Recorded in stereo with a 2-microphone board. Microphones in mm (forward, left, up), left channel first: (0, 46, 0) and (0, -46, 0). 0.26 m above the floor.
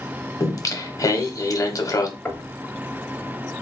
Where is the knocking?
20° left (ahead or behind), 0.8 m.